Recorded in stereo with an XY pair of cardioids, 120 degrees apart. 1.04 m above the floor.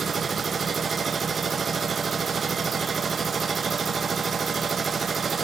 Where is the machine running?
35° right, 0.8 m.